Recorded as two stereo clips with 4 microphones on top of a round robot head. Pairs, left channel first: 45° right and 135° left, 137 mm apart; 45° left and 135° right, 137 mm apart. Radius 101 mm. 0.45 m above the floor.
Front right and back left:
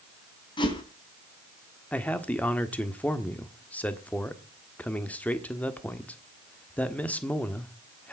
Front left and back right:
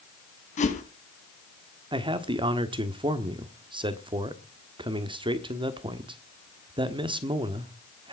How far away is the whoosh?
About 4 m.